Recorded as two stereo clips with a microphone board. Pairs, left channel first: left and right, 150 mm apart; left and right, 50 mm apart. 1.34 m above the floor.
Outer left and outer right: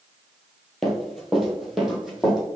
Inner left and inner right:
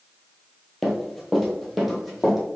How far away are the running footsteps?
About 2 m.